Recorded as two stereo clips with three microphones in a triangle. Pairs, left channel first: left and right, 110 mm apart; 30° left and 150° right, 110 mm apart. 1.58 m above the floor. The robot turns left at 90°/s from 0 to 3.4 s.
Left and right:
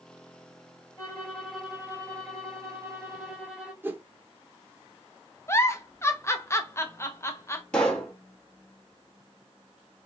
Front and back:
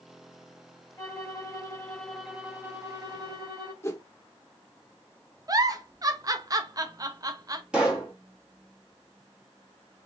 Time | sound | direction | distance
1.0 | a violin | 50° left | 1.0 m
3.8 | a whoosh | 25° right | 0.6 m
5.5 | a giggle | 160° left | 0.5 m
7.7 | a pop | 150° left | 1.0 m